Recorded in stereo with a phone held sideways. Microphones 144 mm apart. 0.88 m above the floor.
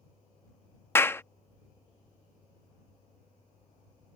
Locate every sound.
0.9 s a clap: 15° left (ahead or behind)